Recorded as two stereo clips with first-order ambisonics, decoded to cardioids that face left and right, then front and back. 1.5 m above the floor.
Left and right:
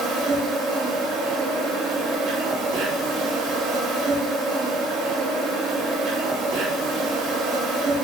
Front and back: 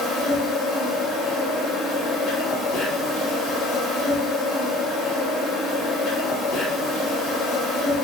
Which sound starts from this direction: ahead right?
An insect, at 0.0 s.